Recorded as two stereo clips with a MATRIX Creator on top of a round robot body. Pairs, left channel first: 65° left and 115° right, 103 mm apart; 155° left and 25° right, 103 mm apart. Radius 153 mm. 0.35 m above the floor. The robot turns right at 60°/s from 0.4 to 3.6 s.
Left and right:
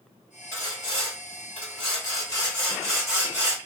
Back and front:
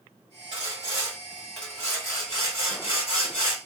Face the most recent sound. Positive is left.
turn(degrees=-165)